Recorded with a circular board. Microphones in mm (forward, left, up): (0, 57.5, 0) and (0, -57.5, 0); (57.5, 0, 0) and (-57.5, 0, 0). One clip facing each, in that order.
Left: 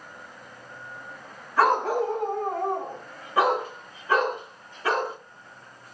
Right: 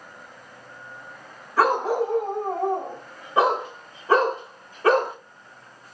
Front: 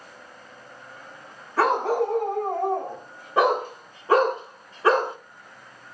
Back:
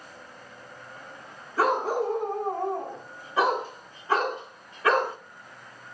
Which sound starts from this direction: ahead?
A dog barking, at 1.6 s.